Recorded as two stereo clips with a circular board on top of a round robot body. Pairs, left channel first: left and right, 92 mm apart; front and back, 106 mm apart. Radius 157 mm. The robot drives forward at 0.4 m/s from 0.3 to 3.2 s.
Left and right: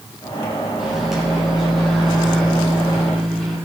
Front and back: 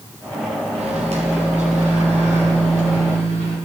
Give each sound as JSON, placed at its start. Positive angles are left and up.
{"t": 0.8, "sound": "a microwave", "azimuth_deg": -175, "distance_m": 1.7}